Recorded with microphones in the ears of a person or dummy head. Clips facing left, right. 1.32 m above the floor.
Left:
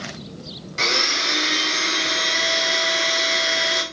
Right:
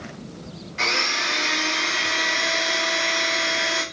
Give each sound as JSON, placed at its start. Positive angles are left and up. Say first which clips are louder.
{"t": 0.8, "sound": "a blender", "louder": "left 2 dB", "side_deg": 50, "distance_m": 0.9}